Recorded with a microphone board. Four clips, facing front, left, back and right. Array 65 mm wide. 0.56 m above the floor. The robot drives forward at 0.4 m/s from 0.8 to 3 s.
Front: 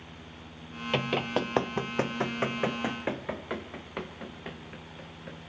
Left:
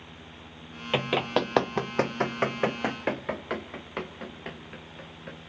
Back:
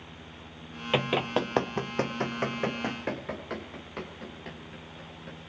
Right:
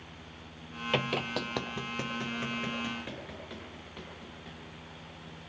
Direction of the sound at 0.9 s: 145° left.